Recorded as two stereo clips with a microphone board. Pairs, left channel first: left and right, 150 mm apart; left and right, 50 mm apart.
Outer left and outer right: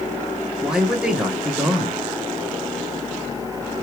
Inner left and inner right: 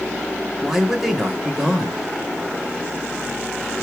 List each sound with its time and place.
0.6 s a man speaking: 5° right (ahead or behind), 2 m